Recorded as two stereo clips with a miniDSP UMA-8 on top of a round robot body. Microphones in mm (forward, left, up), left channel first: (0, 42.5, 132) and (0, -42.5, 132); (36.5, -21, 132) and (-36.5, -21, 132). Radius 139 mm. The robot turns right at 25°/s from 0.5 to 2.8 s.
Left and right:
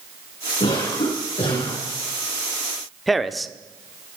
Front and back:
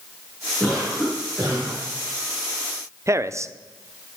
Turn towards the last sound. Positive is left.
turn(degrees=180)